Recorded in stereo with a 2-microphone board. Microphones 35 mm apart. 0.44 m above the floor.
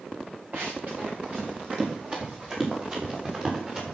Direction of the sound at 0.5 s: 45° right (ahead or behind).